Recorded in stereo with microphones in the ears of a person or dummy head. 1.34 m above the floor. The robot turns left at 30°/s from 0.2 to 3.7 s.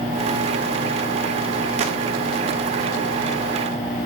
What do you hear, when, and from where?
1.8 s a gunshot: 45° right (ahead or behind), 0.9 m